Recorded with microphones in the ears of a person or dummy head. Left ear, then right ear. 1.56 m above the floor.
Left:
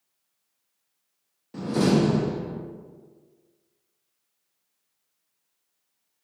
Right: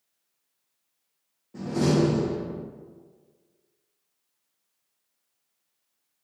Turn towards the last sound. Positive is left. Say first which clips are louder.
# left 1 dB
turn(degrees=55)  # may be behind; listen again after turning